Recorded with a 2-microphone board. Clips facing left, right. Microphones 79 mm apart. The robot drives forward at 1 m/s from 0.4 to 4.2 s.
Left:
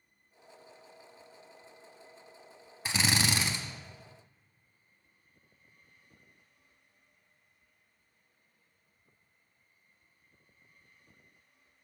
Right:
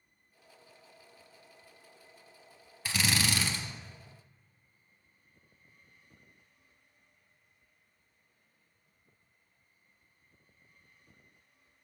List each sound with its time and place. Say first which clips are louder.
2.9 s a drill: left 1 dB; 25° left (ahead or behind), 0.6 m; by 3.6 s 20° left (ahead or behind), 0.8 m